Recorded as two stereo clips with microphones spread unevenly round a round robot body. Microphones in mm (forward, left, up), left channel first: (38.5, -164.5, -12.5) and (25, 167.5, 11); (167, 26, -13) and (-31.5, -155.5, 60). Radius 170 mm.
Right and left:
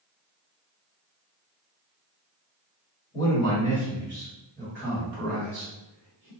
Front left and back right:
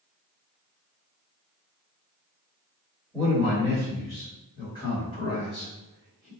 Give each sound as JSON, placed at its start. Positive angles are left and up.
{"t": 3.1, "sound": "a man speaking", "azimuth_deg": -30, "distance_m": 1.9}